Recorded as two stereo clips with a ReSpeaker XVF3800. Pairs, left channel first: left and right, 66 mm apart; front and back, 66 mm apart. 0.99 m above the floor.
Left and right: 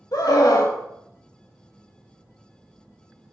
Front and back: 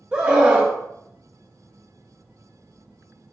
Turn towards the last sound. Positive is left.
turn(degrees=105)